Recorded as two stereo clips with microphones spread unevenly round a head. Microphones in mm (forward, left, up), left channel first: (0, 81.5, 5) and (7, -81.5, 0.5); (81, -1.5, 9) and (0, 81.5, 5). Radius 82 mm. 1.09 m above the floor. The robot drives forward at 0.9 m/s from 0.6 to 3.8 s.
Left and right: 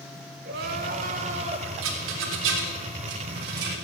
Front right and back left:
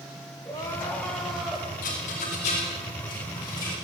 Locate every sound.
0.5 s crying: 115° right, 1.3 m; by 1.7 s 140° right, 1.9 m
1.8 s a rattle: 90° right, 3 m; by 3.7 s 115° right, 3.5 m